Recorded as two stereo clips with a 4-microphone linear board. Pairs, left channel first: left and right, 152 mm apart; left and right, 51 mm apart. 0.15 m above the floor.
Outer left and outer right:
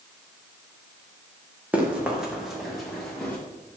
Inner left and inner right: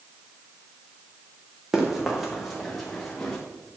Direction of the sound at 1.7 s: 10° right (ahead or behind).